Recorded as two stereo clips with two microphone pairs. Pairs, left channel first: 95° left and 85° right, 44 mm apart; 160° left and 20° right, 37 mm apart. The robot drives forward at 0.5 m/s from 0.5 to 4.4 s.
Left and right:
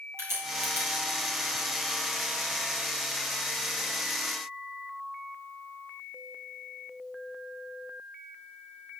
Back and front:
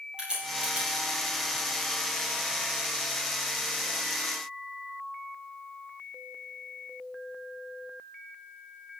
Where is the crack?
85° right, 6.5 m.